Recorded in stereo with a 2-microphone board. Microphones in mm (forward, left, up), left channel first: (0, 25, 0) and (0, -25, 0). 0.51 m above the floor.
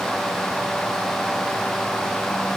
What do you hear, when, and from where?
Only background noise.